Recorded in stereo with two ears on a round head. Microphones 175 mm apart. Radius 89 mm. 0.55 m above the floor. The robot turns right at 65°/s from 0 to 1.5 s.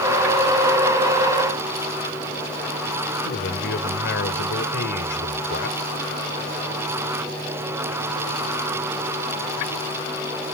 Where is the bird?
No bird in this recording.